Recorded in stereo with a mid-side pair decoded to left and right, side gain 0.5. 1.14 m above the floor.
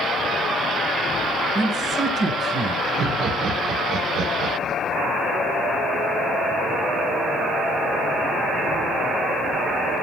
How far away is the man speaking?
About 9.5 m.